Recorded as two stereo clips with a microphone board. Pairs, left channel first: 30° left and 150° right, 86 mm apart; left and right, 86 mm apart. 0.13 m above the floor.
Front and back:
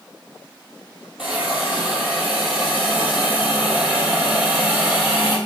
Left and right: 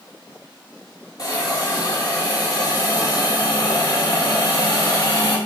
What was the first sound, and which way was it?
A hiss, 125° left.